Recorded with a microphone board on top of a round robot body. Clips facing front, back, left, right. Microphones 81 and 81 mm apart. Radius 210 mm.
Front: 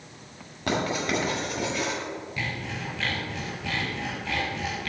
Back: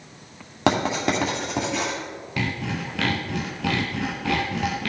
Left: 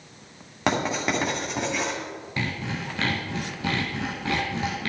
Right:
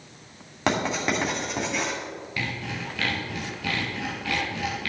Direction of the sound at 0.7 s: 175° left.